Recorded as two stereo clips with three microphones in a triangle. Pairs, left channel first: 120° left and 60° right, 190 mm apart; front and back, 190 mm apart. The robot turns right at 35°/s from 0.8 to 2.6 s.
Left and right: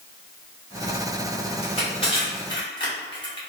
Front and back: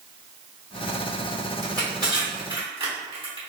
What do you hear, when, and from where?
1.6 s crushing: 130° left, 1.4 m; by 3.4 s 160° left, 1.4 m